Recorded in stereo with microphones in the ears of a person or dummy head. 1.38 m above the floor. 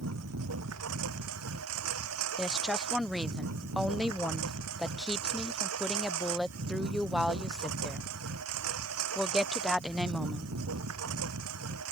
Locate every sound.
0.0 s a lawn mower: 85° right
2.4 s a woman speaking: centre (ahead or behind)